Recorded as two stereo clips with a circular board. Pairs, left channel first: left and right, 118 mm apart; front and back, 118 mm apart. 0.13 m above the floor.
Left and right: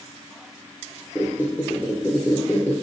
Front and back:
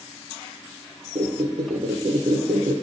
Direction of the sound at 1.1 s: 165° left.